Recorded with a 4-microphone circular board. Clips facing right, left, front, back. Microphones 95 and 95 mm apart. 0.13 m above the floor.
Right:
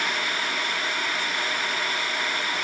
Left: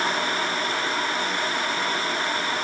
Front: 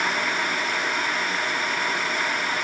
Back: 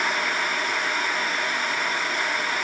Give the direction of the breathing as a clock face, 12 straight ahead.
No breathing in this recording.